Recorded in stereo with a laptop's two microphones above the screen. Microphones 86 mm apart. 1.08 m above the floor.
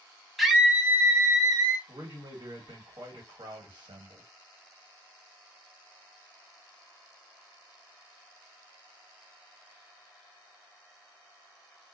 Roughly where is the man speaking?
Right.